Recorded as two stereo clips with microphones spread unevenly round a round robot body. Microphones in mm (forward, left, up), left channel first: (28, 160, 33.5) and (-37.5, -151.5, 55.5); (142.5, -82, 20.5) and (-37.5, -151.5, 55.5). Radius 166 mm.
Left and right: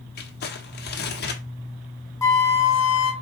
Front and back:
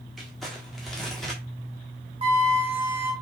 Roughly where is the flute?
Behind left.